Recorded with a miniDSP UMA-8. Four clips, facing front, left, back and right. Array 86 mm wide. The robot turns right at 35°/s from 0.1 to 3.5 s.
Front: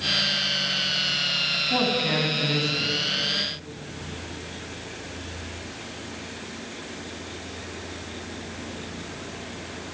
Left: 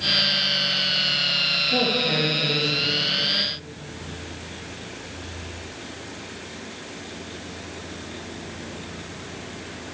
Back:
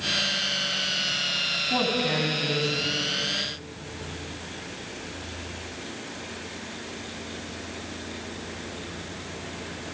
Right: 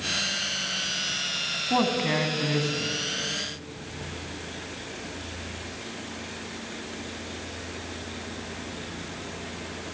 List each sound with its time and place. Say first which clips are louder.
1.7 s a man speaking: even, front 1 dB; 95° right, 2.5 m; by 2.9 s 50° right, 2.5 m